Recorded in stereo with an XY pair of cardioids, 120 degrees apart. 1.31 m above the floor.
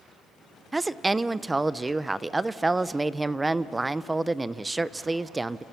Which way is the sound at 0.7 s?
20° right.